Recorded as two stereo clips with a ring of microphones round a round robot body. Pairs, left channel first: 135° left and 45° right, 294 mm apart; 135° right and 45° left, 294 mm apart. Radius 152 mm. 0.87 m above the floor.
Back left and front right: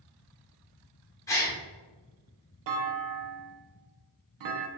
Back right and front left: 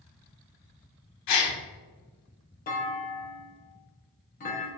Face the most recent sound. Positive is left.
turn(degrees=-70)